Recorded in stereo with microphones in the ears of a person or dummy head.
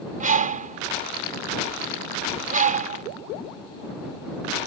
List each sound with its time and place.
0.2 s a bird: 40° right (ahead or behind)